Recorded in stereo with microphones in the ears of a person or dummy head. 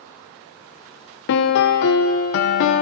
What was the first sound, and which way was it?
A piano, 55° left (ahead or behind).